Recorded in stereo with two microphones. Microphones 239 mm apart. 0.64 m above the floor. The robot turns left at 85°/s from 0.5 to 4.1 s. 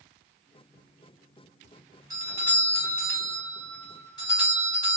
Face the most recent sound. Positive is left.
turn(degrees=20)  # may be behind; listen again after turning